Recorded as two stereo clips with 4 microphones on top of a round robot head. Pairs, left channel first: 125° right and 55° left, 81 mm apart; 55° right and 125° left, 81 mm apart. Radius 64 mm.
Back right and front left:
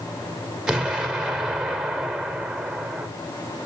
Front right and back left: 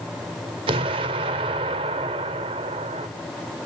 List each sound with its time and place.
0.7 s an explosion: 135° left, 0.5 m